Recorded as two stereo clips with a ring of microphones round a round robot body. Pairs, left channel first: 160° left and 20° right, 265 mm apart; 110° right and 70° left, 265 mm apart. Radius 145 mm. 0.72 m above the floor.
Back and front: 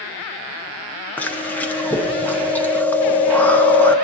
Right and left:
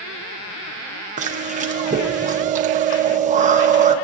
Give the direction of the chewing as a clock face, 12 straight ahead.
9 o'clock.